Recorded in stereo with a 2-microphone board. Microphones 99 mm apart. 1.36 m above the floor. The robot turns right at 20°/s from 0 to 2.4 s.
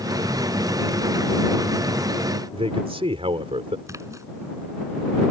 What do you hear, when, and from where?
2.5 s a man speaking: 75° right (ahead or behind)
3.9 s a splash: 30° right (ahead or behind)